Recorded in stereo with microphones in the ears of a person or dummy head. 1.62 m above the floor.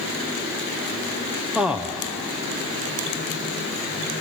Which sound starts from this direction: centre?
A man speaking, at 1.6 s.